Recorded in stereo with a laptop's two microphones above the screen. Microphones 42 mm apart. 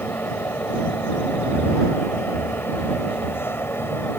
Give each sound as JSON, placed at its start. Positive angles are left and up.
{"t": 0.0, "sound": "a fan", "side_deg": 75}